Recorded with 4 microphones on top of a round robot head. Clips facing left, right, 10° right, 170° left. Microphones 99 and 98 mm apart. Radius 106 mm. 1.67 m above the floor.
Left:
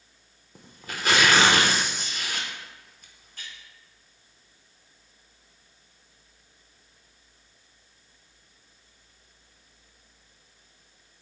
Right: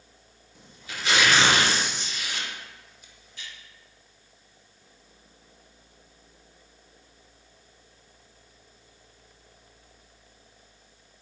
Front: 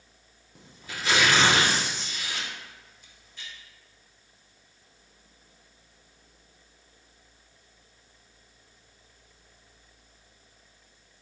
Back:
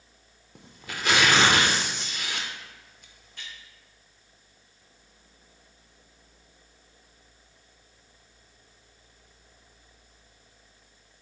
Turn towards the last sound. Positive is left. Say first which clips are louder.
# left 2 dB, back 2 dB
turn(degrees=140)